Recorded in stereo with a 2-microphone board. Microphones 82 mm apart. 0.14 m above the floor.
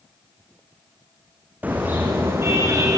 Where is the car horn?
20° right (ahead or behind), 5 m; by 3.0 s 35° right (ahead or behind), 5.5 m.